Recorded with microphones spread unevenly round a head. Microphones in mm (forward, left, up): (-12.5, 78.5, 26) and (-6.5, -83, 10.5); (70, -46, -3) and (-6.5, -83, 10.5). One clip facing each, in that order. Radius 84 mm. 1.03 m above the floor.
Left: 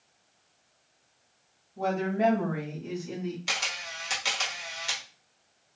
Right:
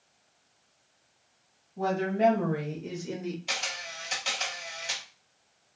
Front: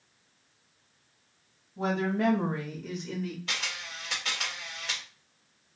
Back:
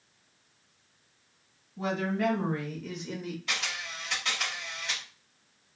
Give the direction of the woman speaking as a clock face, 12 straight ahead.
12 o'clock.